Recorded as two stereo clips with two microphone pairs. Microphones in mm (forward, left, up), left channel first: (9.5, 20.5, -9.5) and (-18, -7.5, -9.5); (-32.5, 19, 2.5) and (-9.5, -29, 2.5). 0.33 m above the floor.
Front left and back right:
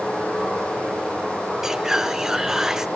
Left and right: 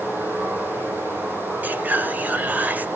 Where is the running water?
15° right, 7.5 m.